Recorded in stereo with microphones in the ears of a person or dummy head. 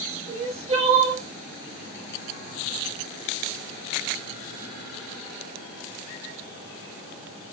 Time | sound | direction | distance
0.3 | crying | 30° right (ahead or behind) | 0.9 m